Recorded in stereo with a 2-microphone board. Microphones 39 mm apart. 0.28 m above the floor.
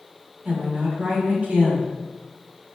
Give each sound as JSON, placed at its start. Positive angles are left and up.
{"t": 0.5, "sound": "a woman speaking", "side_deg": -40, "distance_m": 1.5}